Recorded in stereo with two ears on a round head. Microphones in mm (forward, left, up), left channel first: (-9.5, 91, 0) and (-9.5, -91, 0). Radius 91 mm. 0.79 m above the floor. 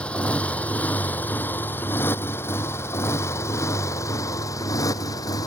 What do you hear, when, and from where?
0.0 s a motorcycle: 5° left (ahead or behind); by 5.5 s 15° left (ahead or behind)